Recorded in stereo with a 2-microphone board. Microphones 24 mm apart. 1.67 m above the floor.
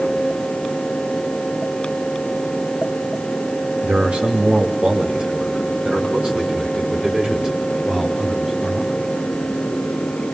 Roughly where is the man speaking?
Right.